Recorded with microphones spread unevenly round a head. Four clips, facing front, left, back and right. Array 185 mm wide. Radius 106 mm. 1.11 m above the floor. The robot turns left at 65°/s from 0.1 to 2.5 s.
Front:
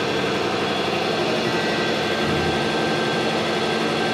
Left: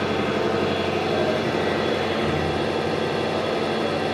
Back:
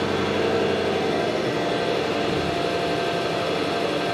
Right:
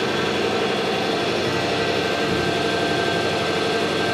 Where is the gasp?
No gasp in this recording.